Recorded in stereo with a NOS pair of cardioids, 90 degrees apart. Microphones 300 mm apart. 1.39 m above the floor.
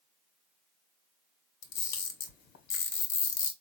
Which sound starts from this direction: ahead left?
A camera shutter, at 1.6 s.